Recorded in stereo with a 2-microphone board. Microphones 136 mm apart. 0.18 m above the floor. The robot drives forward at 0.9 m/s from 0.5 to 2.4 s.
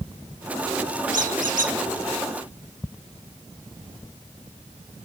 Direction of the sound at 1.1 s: 75° right (ahead or behind).